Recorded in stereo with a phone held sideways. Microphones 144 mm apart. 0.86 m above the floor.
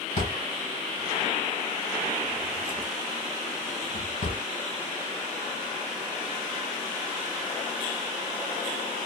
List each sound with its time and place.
0.2 s a drawer: 60° left (ahead or behind), 2.5 m